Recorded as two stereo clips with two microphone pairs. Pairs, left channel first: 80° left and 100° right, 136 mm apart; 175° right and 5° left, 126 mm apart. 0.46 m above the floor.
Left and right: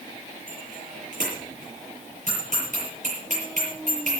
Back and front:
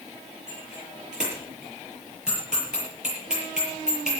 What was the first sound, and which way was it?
A bicycle bell, 80° right.